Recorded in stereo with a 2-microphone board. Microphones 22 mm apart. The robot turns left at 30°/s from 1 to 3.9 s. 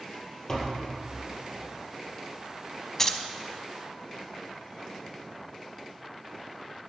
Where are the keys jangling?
20° left (ahead or behind), 0.7 m.